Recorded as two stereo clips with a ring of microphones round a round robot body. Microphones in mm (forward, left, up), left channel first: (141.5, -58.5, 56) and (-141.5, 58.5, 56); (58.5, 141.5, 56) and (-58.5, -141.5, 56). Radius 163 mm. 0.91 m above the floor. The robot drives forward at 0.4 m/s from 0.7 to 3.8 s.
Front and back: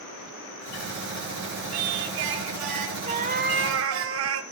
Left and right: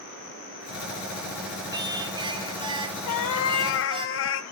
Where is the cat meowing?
90° left, 0.8 m; by 4.4 s 115° left, 0.9 m.